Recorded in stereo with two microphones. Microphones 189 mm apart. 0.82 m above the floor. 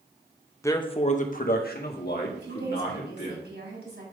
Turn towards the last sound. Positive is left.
turn(degrees=-70)  # may be behind; listen again after turning